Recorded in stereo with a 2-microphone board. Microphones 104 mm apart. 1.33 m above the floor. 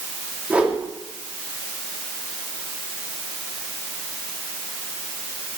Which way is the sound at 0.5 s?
15° right (ahead or behind).